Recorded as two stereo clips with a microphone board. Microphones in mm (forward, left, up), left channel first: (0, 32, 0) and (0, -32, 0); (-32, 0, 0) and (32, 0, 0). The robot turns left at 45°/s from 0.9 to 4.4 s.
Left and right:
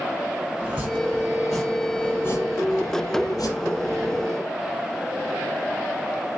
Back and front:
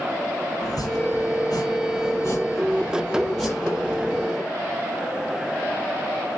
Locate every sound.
0.6 s chopping: 155° right, 6 m; by 4.3 s 55° left, 6 m